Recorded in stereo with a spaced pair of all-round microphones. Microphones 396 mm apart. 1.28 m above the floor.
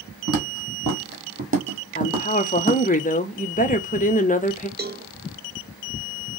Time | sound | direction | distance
0.3 | footsteps | 40° right (ahead or behind) | 2 m
1.9 | a woman speaking | 20° left (ahead or behind) | 0.9 m
4.8 | a cowbell | 25° right (ahead or behind) | 0.5 m